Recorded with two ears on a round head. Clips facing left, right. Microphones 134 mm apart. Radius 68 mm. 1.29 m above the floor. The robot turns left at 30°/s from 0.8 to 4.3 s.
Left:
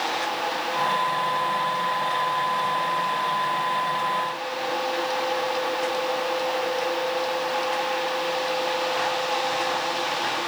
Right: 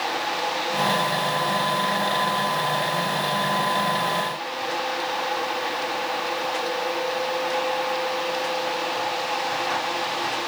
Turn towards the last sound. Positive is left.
No sound to turn to.